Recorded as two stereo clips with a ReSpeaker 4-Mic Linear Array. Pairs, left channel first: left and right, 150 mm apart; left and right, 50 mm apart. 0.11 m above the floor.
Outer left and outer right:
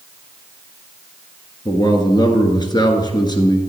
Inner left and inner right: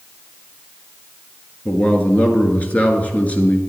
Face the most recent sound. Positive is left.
turn(degrees=30)  # may be behind; listen again after turning